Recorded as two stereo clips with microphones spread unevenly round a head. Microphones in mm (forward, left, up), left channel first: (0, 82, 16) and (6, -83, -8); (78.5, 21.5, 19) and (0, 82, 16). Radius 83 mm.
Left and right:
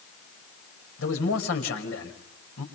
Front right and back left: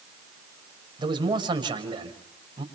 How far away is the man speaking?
About 5.5 m.